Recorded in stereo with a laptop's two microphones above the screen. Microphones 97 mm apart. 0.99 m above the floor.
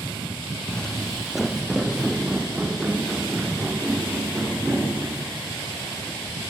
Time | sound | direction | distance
0.7 | footsteps | 10° left (ahead or behind) | 1.7 m